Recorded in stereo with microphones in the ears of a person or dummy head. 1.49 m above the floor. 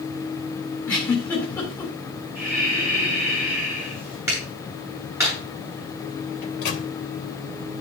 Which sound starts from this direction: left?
A microwave, at 6.4 s.